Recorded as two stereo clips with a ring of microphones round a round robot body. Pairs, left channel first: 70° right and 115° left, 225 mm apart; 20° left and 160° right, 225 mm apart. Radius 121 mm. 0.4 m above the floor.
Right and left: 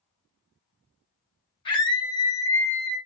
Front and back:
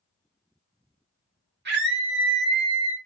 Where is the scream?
130° right, 2.5 m; by 3.0 s 155° right, 2.5 m.